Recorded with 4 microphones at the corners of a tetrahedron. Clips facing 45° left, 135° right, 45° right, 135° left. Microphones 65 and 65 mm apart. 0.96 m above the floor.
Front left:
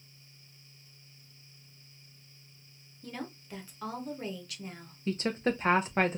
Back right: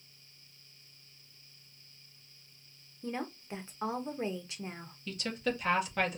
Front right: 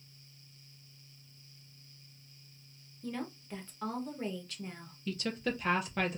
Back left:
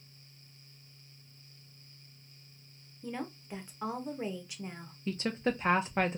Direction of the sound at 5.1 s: 90° left.